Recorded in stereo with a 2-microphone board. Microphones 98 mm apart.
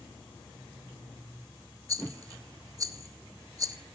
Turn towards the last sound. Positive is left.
turn(degrees=-35)  # may be behind; listen again after turning